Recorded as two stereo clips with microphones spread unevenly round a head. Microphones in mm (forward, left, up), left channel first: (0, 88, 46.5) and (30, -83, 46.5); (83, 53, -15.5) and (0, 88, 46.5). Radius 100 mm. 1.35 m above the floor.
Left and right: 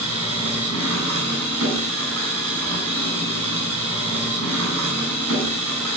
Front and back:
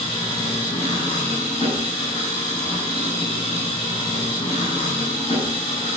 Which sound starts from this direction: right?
An engine running, at 0.0 s.